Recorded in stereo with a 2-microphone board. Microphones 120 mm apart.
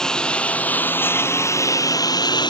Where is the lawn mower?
5° left (ahead or behind); by 2.5 s 40° left (ahead or behind).